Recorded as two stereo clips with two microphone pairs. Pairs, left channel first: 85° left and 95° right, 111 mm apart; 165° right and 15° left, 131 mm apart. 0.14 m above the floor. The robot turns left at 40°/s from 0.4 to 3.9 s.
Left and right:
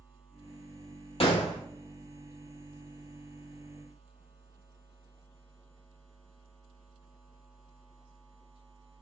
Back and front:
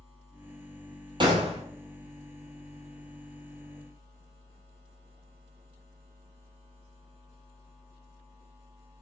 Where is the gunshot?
65° left, 0.9 m; by 1.6 s 50° left, 0.9 m.